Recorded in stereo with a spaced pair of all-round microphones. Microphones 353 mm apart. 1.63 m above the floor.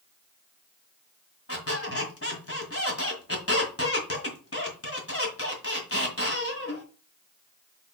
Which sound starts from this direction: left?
A squeak, at 1.5 s.